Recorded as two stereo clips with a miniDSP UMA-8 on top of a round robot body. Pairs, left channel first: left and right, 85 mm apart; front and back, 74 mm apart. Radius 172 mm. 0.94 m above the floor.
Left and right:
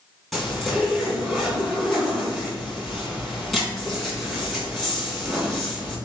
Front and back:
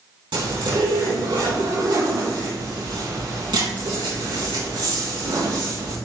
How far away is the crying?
No crying in this recording.